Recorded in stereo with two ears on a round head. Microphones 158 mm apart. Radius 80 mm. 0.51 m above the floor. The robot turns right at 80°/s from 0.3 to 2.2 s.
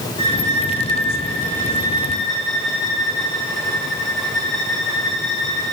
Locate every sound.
0.2 s a violin: 30° left, 5 m; by 5.7 s straight behind, 5 m